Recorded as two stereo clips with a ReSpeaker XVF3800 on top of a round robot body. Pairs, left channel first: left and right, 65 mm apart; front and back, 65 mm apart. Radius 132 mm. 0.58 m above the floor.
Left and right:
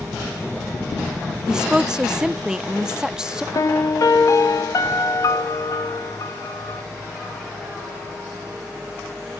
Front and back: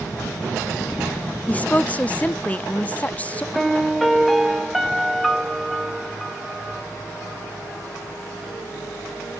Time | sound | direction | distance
1.5 | a woman speaking | 25° right | 0.6 m
3.5 | a piano | 90° left | 0.8 m